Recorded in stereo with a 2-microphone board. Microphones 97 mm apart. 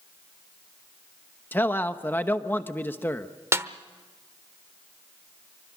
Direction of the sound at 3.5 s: 30° right (ahead or behind).